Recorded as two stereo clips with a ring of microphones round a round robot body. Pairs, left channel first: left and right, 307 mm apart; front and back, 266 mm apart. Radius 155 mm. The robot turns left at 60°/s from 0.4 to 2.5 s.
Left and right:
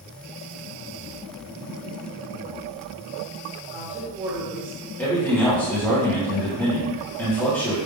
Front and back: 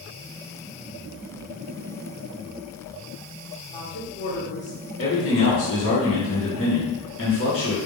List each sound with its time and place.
3.7 s a woman speaking: 30° right, 1.2 m
5.0 s a man speaking: 5° left, 1.3 m